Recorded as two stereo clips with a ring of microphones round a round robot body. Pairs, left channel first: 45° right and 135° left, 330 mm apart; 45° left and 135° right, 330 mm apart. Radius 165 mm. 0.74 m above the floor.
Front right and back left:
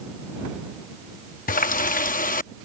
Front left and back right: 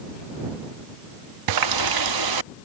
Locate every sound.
1.5 s a running tap: 110° right